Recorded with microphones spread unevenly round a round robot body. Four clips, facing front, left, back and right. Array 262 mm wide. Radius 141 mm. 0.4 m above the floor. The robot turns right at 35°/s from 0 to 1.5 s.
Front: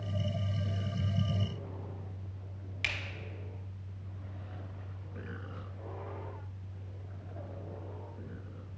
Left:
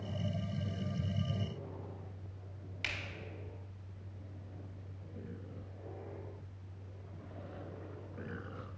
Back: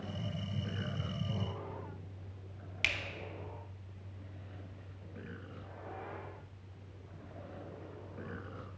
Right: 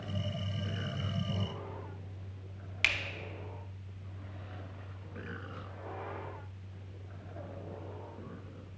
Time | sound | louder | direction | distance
2.8 | a finger snap | right 8 dB, back 1 dB | 120° right | 1.1 m